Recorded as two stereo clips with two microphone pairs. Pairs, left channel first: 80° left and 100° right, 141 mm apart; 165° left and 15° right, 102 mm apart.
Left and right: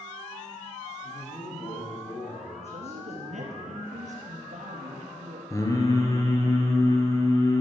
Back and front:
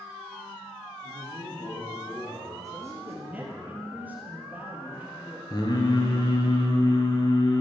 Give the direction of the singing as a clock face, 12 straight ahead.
7 o'clock.